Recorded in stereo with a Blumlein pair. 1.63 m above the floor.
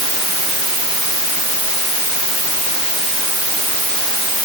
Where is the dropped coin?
No dropped coin in this recording.